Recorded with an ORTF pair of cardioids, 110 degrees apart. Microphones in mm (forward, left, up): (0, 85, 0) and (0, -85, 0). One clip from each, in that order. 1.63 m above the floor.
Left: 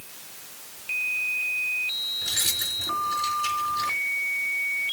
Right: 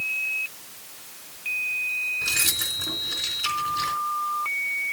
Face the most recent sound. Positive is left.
turn(degrees=-35)